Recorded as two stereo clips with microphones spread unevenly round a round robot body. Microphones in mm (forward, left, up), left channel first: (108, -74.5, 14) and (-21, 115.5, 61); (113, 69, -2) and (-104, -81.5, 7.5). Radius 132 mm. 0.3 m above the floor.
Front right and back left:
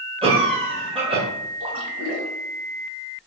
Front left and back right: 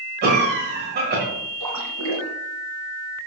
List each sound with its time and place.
0.2 s a cough: 170° right, 1.8 m
1.6 s a splash: 165° right, 2 m